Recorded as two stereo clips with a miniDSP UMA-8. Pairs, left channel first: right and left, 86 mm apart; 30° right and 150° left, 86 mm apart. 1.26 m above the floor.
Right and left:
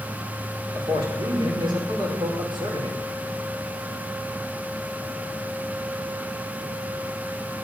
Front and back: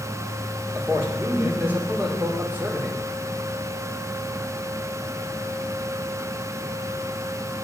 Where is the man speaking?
85° left, 4.5 m.